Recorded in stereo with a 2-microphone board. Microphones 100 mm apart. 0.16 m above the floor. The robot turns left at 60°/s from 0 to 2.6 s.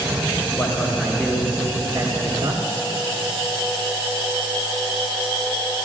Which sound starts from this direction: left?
A man speaking, at 0.6 s.